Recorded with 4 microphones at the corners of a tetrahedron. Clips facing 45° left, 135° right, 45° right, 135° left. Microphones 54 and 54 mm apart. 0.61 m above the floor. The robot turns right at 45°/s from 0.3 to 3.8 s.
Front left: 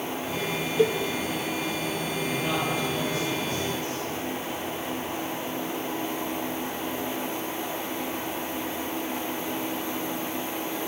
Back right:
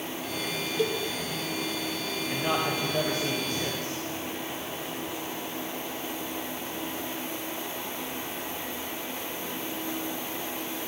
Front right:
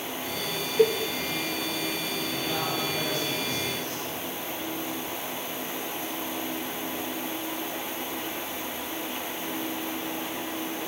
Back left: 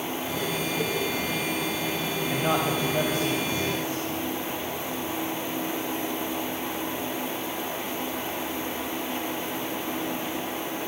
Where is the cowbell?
20° right, 1.2 m; by 1.0 s 15° right, 1.2 m.